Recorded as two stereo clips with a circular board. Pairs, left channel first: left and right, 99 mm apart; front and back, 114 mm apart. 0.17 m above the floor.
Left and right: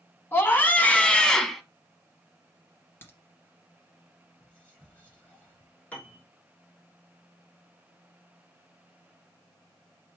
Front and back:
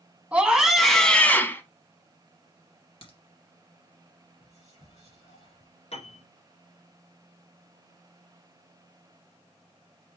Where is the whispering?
15° left, 5.5 m.